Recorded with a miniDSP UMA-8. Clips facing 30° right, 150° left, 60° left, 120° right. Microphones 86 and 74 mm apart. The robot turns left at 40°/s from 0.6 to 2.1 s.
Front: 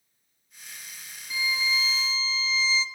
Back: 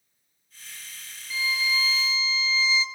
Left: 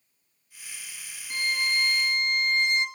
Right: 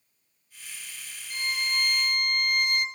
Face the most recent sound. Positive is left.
turn(degrees=5)